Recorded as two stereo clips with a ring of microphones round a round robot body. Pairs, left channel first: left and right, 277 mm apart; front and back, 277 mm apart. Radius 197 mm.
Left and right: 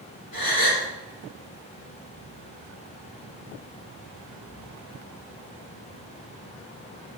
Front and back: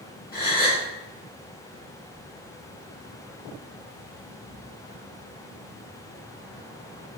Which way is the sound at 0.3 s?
60° left.